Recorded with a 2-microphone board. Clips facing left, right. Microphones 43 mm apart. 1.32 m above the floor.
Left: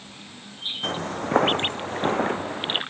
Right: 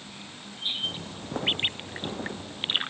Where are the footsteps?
60° left (ahead or behind).